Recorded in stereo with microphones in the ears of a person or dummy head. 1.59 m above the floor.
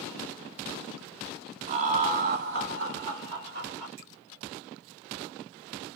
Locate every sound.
1.7 s laughter: 40° right (ahead or behind), 0.9 m; by 3.9 s 30° right (ahead or behind), 0.9 m
4.0 s a finger snap: 70° right (ahead or behind), 2.0 m